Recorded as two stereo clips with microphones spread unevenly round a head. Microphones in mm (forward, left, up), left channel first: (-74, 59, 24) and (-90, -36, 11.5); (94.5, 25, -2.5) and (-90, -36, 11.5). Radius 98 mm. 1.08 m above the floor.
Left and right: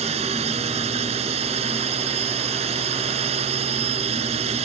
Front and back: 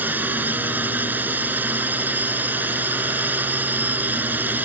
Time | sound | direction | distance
0.0 | a drone | 80° right | ?